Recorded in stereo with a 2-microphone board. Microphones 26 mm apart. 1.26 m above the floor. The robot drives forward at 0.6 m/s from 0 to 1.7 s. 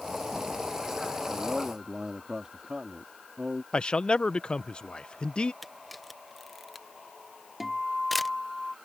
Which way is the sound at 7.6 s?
10° right (ahead or behind).